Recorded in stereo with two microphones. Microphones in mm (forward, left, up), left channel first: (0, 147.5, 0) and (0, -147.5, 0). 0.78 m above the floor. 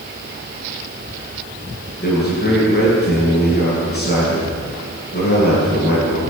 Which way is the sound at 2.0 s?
30° left (ahead or behind).